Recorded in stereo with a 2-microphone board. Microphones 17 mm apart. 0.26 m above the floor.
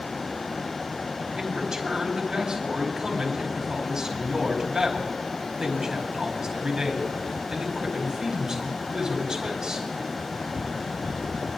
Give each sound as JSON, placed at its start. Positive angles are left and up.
{"t": 1.4, "sound": "a man speaking", "side_deg": -35, "distance_m": 2.0}